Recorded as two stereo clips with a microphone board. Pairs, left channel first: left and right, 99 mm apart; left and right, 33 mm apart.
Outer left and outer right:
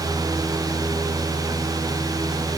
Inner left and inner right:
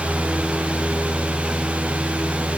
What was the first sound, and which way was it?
Only background noise.